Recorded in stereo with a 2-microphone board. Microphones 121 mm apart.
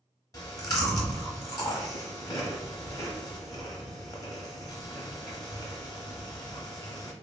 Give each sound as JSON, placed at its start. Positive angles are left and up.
{"t": 0.3, "sound": "chewing", "side_deg": 30, "distance_m": 0.8}